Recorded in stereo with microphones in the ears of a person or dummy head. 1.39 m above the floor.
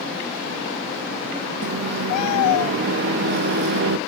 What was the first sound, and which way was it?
A microwave, 60° right (ahead or behind).